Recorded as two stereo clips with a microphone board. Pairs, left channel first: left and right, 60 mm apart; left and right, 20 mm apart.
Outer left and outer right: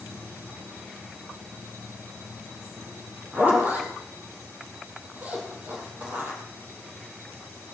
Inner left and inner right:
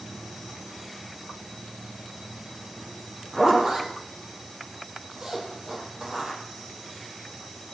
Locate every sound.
3.3 s a zipper: 30° right (ahead or behind), 4 m